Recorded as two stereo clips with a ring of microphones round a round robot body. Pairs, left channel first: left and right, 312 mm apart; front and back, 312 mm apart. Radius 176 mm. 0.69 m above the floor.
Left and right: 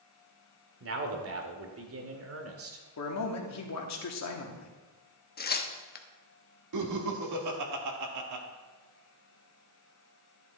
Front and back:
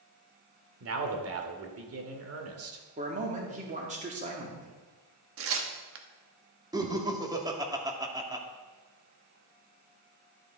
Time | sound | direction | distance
0.8 | a man speaking | 135° right | 1.9 m
3.0 | a man speaking | 115° left | 1.9 m
5.4 | tearing paper | 145° left | 1.1 m
6.7 | laughter | 105° right | 1.8 m